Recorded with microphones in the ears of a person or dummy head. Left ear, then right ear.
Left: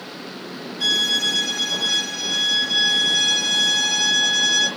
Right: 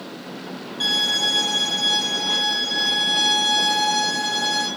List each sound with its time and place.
0.8 s a violin: 25° right (ahead or behind), 2 m